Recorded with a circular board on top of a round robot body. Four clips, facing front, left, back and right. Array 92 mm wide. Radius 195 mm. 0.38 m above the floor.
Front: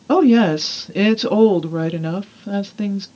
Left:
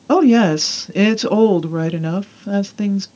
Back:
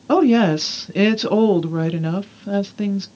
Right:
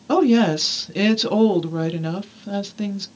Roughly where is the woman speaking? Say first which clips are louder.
Left 4 dB, front 1 dB; left.